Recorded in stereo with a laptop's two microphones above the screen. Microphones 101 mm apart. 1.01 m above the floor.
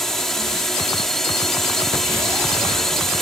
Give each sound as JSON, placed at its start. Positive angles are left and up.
{"t": 0.0, "sound": "a drone", "side_deg": 5}